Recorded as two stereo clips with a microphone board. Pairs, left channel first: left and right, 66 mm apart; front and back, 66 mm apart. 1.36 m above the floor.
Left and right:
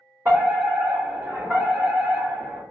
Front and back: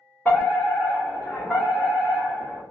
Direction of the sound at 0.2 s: 55° right.